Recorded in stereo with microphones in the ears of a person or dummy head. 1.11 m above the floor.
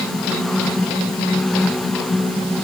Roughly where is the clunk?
I don't hear a clunk.